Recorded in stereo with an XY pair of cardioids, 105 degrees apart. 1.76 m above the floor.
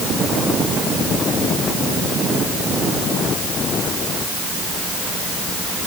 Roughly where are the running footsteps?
I don't hear running footsteps.